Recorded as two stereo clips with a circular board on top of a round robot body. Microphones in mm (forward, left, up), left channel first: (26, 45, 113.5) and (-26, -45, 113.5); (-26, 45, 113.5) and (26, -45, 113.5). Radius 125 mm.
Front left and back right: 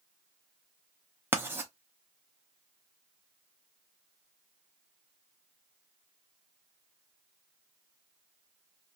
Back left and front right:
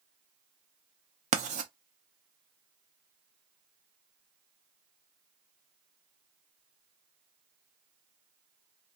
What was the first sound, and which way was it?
Writing, 50° right.